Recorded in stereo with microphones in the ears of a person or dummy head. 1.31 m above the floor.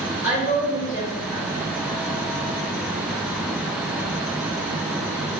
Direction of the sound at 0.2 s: Centre (ahead or behind).